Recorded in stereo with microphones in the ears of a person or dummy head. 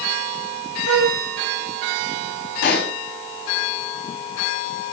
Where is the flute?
75° right (ahead or behind), 1.4 m.